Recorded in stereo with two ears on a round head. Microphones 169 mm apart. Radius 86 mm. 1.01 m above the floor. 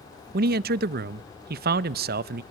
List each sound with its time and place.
0.3 s a man speaking: 55° right (ahead or behind), 0.6 m